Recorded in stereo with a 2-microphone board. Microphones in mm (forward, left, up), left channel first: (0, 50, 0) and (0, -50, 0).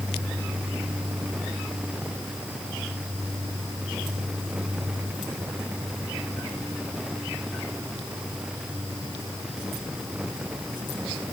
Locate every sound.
Only background noise.